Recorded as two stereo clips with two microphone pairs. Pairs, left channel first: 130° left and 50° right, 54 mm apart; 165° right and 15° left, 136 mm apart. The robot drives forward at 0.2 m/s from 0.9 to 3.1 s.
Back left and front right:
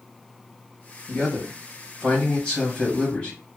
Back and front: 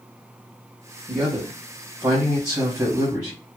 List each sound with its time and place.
1.1 s a man speaking: 50° left, 1.1 m; by 3.4 s 85° left, 1.0 m